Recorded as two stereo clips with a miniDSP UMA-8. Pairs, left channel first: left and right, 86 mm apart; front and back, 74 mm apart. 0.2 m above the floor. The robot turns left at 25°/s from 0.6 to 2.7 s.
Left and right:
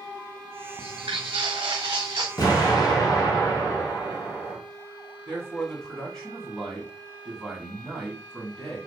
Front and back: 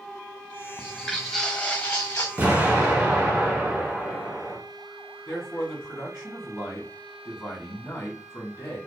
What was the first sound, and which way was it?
Footsteps, 105° right.